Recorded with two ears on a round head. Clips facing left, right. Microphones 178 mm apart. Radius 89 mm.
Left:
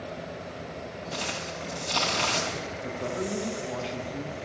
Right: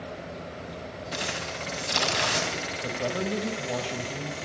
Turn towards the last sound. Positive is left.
turn(degrees=-50)  # may be behind; listen again after turning